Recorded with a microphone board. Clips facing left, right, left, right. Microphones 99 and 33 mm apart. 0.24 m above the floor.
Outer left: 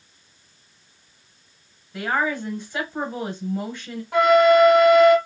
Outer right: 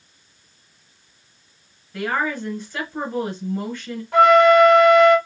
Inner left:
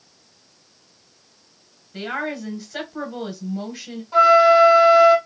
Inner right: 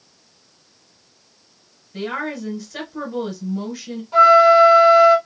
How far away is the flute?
About 1.5 m.